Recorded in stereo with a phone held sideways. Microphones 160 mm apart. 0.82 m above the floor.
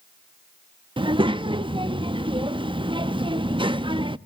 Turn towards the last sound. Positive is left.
turn(degrees=-30)  # may be behind; listen again after turning